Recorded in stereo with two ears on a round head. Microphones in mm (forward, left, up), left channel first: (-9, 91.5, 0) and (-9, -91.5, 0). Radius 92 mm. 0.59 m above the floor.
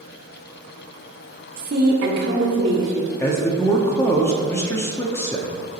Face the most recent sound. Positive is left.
turn(degrees=15)  # may be behind; listen again after turning